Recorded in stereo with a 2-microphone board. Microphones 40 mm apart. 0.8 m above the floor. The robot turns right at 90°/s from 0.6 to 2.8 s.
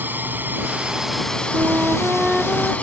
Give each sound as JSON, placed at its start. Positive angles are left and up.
{"t": 0.0, "sound": "a drone", "azimuth_deg": -50}
{"t": 1.5, "sound": "a flute", "azimuth_deg": -80}